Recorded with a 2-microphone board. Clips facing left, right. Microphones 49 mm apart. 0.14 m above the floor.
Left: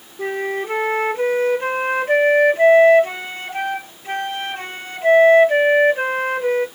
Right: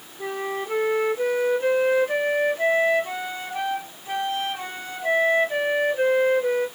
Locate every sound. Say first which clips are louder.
0.2 s a flute: left 5 dB; 55° left (ahead or behind), 0.5 m